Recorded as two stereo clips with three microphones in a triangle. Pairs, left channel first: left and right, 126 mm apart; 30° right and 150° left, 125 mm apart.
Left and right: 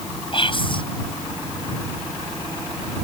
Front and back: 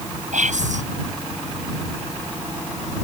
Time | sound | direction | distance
0.3 | whispering | 135° left | ?